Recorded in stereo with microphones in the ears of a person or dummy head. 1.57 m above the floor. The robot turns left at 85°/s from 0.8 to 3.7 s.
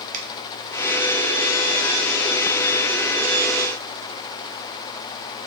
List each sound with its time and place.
0.1 s a finger snap: 45° right (ahead or behind), 0.8 m